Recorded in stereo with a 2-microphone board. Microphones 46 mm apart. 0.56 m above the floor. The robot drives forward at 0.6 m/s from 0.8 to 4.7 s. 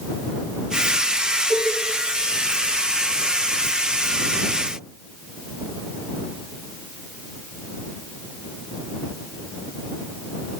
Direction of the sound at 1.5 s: 55° right (ahead or behind).